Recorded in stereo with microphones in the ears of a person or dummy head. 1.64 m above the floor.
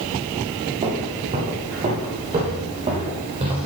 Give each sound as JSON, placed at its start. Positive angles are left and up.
{"t": 0.8, "sound": "footsteps", "side_deg": -30, "distance_m": 2.5}